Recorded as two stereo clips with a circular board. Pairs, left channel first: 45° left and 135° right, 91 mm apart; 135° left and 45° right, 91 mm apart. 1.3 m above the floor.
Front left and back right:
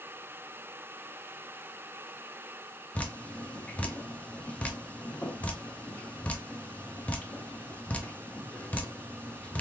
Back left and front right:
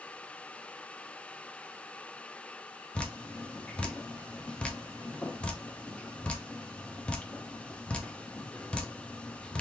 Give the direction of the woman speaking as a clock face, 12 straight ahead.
I don't hear a woman speaking.